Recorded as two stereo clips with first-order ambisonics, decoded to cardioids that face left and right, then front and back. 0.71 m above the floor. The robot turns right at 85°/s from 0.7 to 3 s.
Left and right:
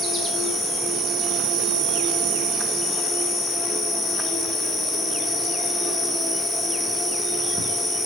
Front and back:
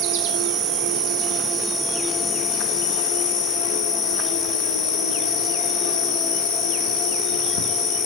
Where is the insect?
170° left, 0.7 m; by 8.1 s 5° left, 0.7 m.